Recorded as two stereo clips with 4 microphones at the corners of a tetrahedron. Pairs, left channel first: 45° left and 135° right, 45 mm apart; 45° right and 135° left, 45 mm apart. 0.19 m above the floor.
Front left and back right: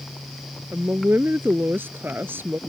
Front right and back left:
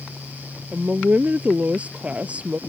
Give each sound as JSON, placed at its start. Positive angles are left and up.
{"t": 0.7, "sound": "a woman speaking", "azimuth_deg": -165}